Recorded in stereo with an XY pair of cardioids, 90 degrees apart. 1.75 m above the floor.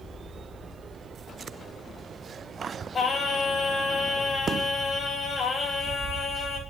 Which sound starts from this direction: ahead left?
Singing, at 2.9 s.